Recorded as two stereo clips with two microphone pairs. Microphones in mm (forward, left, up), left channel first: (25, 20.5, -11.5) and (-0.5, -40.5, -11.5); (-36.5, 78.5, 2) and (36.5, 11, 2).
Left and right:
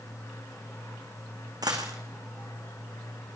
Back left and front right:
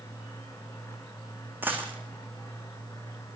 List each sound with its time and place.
1.6 s a dropped coin: 115° right, 2.5 m